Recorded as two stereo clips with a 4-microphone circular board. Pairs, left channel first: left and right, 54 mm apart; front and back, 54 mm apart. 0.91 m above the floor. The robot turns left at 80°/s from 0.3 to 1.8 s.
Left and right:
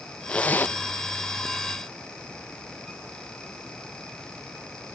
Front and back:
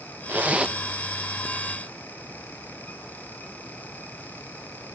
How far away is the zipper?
About 0.6 m.